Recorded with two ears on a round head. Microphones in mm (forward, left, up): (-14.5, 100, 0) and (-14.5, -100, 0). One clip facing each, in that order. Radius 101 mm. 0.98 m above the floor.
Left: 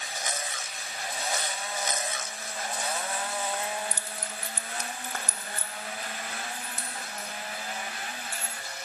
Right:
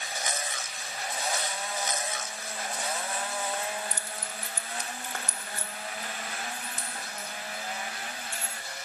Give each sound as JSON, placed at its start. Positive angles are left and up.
{"t": 3.6, "sound": "keys jangling", "side_deg": 45, "distance_m": 0.8}